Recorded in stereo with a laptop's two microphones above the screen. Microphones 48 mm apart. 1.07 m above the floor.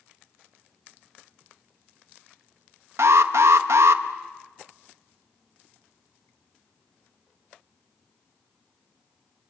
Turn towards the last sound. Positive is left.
turn(degrees=-80)